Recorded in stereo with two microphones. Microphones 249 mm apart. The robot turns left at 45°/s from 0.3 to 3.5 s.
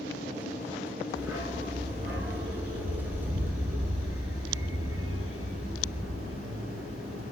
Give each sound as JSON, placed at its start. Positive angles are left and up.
{"t": 1.1, "sound": "a dog barking", "side_deg": -5, "distance_m": 1.2}